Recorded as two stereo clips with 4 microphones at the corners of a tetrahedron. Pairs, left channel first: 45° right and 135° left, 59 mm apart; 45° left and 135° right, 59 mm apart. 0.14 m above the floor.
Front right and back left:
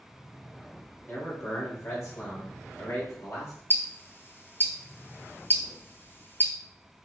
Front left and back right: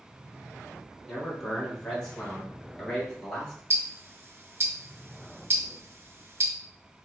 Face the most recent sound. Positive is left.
turn(degrees=-95)